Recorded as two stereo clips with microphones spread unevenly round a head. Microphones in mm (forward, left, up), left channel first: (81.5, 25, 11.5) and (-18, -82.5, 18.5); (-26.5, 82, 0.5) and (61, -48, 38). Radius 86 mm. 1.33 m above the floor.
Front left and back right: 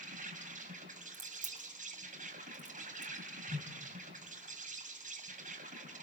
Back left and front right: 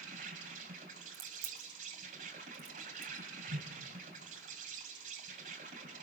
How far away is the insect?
About 4.5 m.